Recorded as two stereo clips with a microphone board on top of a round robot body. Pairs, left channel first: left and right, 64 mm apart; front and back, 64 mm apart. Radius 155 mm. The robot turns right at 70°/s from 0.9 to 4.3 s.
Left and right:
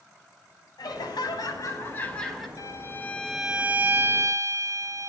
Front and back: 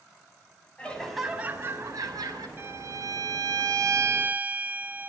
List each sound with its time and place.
0.8 s laughter: 75° left, 6 m; by 2.5 s 175° right, 6 m
2.6 s a violin: 125° left, 2 m; by 5.1 s 115° right, 2 m